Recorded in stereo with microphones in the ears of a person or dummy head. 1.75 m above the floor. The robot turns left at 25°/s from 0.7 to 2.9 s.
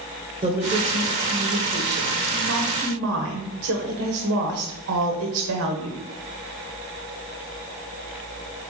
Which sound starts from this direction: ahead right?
A woman speaking, at 0.4 s.